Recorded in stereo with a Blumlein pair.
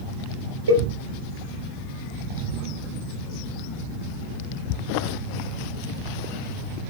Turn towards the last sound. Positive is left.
turn(degrees=-65)